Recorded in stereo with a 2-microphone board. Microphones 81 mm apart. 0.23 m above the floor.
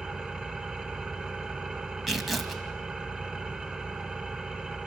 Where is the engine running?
10° right (ahead or behind), 1.0 m.